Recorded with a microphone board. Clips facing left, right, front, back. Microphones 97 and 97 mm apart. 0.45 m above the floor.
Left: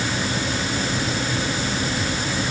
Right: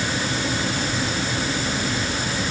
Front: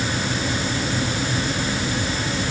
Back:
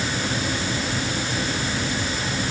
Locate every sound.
Only background noise.